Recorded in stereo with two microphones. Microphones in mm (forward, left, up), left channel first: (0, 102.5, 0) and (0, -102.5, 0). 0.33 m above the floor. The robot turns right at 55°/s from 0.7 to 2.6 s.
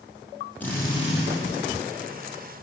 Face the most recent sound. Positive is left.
turn(degrees=110)